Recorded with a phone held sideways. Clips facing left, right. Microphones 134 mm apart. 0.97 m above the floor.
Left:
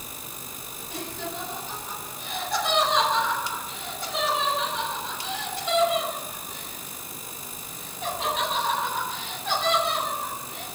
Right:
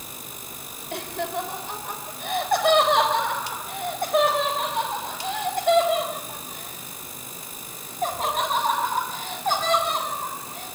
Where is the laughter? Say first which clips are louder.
Right 6 dB; 65° right (ahead or behind), 4.5 m; by 10.7 s 45° right (ahead or behind), 9.5 m.